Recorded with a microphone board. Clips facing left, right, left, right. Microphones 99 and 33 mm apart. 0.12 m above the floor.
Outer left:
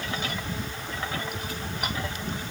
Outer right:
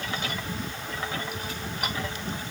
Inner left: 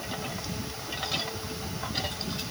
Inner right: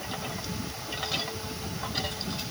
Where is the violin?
No violin in this recording.